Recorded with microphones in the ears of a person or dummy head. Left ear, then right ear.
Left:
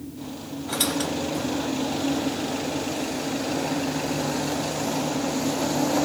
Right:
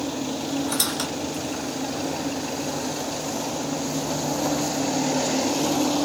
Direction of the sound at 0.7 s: 50° right (ahead or behind).